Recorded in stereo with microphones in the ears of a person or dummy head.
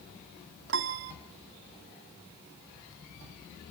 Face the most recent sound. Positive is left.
turn(degrees=-60)  # may be behind; listen again after turning